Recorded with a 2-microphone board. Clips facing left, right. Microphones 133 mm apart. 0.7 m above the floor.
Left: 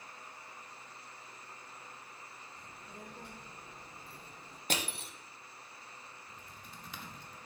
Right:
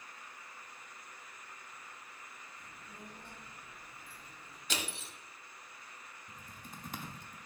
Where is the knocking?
I don't hear knocking.